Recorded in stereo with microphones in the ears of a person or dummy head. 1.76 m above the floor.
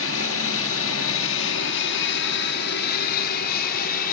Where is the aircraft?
75° left (ahead or behind); by 4.1 s 45° left (ahead or behind).